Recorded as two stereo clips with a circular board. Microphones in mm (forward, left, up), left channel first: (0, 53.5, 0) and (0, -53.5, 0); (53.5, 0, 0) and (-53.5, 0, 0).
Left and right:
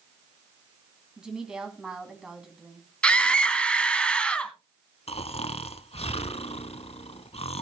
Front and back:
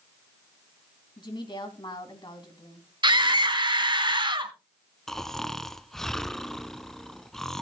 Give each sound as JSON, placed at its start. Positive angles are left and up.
{"t": 1.2, "sound": "a woman speaking", "azimuth_deg": -10, "distance_m": 2.0}
{"t": 3.0, "sound": "a scream", "azimuth_deg": 165, "distance_m": 1.6}
{"t": 5.1, "sound": "snoring", "azimuth_deg": 85, "distance_m": 0.5}